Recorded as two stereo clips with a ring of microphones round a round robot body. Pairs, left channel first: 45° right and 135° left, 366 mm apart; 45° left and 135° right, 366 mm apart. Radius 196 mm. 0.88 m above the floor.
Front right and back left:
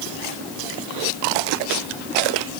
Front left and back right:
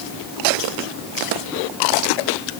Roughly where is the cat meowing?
I don't hear a cat meowing.